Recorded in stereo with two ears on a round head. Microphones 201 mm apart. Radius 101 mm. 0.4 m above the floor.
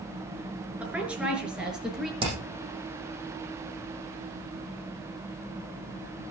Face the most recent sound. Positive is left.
turn(degrees=-25)  # may be behind; listen again after turning